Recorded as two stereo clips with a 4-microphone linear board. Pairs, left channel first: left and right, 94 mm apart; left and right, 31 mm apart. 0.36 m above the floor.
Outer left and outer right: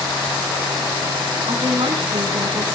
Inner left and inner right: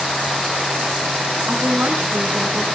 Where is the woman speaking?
70° right (ahead or behind), 3 m.